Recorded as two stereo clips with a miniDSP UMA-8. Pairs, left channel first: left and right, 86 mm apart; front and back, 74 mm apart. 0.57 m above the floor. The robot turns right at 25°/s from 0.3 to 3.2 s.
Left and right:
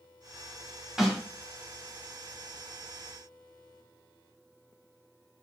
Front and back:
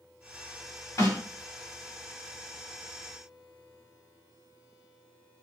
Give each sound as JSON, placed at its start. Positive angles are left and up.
{"t": 1.0, "sound": "a snare drum", "azimuth_deg": -10, "distance_m": 1.5}